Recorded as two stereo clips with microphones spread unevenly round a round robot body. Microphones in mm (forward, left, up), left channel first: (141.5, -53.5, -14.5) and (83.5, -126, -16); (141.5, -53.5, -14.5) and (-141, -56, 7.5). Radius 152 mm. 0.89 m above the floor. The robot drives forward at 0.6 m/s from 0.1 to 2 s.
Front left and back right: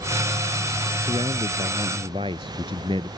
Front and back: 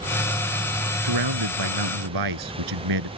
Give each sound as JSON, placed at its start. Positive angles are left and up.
{"t": 1.0, "sound": "a man speaking", "azimuth_deg": 160}